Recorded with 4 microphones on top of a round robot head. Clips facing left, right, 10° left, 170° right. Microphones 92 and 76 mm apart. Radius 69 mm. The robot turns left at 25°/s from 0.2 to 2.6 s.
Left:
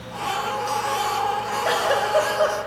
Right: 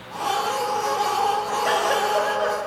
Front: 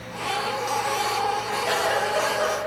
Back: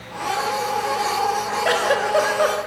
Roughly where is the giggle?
Behind.